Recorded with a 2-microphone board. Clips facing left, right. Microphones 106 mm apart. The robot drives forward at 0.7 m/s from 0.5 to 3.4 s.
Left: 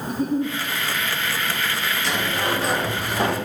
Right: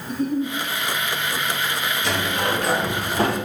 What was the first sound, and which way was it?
A giggle, centre (ahead or behind).